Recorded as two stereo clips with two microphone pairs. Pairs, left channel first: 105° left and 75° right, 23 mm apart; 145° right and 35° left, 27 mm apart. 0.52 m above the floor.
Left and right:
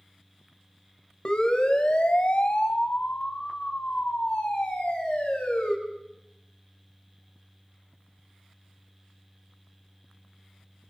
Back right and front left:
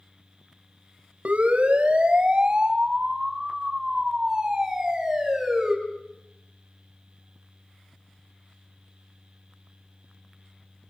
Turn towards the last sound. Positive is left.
turn(degrees=115)